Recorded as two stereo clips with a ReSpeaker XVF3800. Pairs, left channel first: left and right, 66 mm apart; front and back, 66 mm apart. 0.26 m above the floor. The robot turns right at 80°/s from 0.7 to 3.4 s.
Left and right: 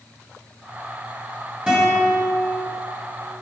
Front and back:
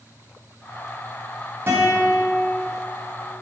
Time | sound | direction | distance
1.7 | a guitar | 155° right | 1.7 m